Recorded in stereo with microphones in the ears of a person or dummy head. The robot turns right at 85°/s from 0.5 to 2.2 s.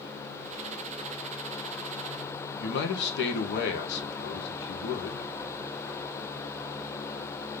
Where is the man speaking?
60° left (ahead or behind), 1.3 m.